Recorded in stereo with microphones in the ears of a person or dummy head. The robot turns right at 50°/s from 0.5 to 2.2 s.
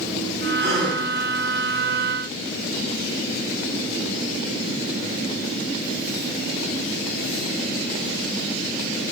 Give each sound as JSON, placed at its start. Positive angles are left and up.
{"t": 0.6, "sound": "a gasp", "side_deg": -35, "distance_m": 2.0}